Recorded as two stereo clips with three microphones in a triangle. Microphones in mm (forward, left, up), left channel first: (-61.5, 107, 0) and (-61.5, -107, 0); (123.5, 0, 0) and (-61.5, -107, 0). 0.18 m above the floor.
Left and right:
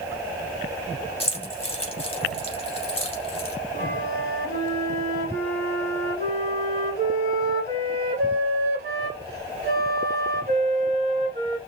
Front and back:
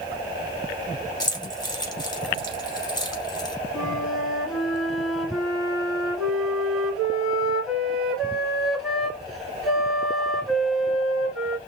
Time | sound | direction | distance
1.2 | keys jangling | 75° left | 0.7 m
3.7 | a flute | 60° right | 1.0 m